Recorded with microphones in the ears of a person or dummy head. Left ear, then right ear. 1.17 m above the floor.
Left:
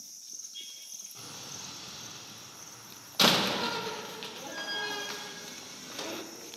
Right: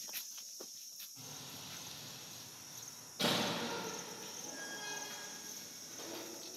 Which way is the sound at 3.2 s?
60° left (ahead or behind).